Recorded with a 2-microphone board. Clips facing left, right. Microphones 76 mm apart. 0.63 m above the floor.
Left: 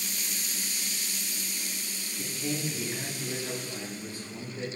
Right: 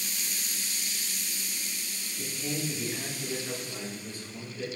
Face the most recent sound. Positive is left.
turn(degrees=65)  # may be behind; listen again after turning